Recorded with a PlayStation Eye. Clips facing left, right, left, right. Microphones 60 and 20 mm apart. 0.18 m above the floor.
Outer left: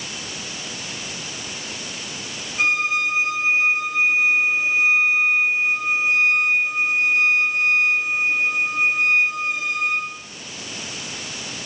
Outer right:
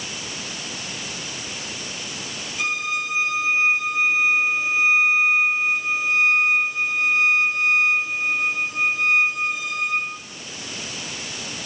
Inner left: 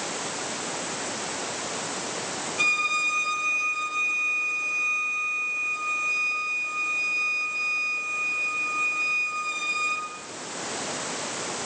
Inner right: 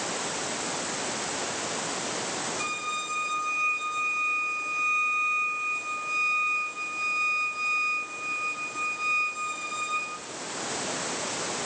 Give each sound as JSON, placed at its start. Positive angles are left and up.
{"t": 2.6, "sound": "a violin", "side_deg": 35, "distance_m": 6.5}